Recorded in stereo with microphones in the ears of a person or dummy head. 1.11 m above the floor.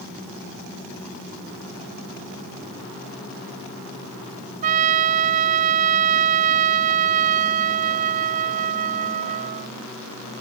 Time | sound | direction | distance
4.6 | a trumpet | 35° right (ahead or behind) | ?